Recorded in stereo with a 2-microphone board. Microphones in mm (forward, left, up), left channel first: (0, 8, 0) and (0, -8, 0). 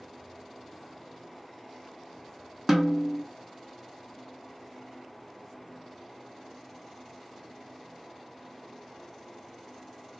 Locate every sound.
2.7 s a snare drum: 10° right (ahead or behind), 1.0 m